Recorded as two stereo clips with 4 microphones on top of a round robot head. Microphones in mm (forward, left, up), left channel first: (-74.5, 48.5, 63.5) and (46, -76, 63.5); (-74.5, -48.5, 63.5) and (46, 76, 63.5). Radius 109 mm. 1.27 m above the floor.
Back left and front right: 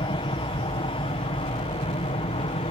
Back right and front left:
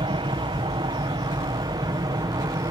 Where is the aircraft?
90° left; by 2.7 s 100° left.